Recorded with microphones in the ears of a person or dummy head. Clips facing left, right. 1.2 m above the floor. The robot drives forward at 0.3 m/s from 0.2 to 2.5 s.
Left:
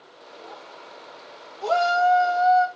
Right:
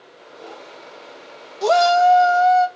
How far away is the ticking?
No ticking in this recording.